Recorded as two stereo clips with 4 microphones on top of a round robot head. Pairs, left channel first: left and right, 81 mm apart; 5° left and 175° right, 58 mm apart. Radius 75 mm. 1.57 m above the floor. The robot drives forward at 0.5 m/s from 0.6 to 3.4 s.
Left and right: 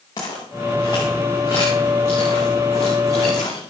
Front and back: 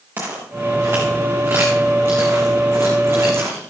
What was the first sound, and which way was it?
Footsteps, 140° left.